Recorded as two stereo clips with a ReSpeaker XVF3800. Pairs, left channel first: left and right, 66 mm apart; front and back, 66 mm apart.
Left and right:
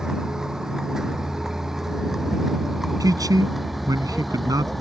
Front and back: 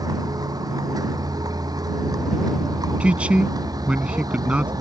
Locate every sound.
0.0 s a vehicle: 170° right; by 4.8 s straight behind
3.0 s a man speaking: 105° right